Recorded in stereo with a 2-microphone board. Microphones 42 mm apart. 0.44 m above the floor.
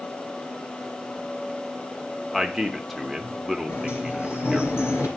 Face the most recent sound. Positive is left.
turn(degrees=75)  # may be behind; listen again after turning